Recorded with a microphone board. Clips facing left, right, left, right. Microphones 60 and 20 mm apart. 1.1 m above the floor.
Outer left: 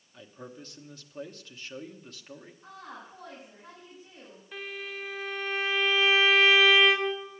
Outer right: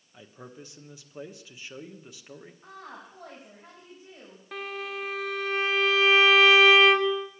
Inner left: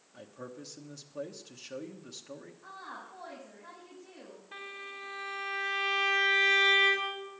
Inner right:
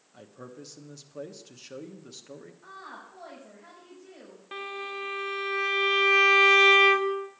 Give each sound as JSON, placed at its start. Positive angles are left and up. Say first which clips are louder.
{"t": 0.1, "sound": "a man speaking", "louder": "outer left 1 dB, even", "side_deg": -10, "distance_m": 1.2}
{"t": 2.6, "sound": "a woman speaking", "louder": "even, even", "side_deg": -45, "distance_m": 6.0}
{"t": 4.5, "sound": "a violin", "louder": "outer right 4 dB, inner right 8 dB", "side_deg": -85, "distance_m": 1.3}